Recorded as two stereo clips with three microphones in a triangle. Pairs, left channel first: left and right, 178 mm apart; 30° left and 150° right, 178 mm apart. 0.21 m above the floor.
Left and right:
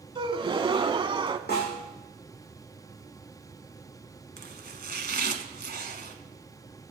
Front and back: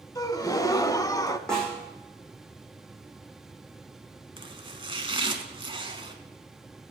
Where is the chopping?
95° right, 1.2 m.